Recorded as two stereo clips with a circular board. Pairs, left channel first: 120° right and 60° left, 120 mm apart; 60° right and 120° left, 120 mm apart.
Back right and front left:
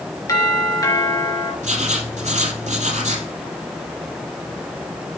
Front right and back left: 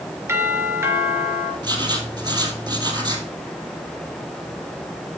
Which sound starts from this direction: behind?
A doorbell, at 0.3 s.